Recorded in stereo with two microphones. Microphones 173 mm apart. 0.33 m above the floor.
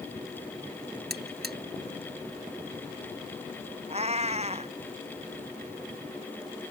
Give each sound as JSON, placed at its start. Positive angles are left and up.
{"t": 1.1, "sound": "a buzzer", "side_deg": -65}
{"t": 3.9, "sound": "a cat meowing", "side_deg": -40}